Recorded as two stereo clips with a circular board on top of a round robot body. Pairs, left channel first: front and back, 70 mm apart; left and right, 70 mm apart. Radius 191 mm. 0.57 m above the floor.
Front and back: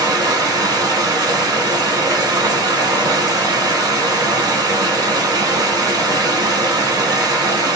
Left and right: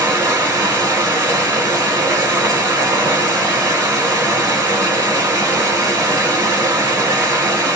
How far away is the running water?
About 0.8 m.